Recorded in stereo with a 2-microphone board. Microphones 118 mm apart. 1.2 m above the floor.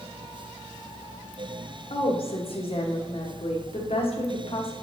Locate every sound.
1.9 s a woman speaking: 55° left (ahead or behind), 1.2 m